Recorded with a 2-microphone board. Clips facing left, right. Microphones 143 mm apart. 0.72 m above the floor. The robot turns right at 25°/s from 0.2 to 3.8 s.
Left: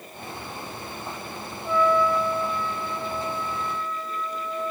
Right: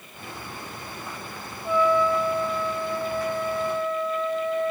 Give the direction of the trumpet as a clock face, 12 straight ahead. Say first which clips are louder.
Even; 6 o'clock.